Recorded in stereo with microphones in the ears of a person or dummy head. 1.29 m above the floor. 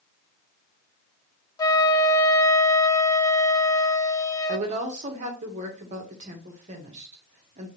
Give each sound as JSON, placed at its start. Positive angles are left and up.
{"t": 1.6, "sound": "a flute", "side_deg": 20, "distance_m": 0.6}
{"t": 4.5, "sound": "a woman speaking", "side_deg": -40, "distance_m": 1.5}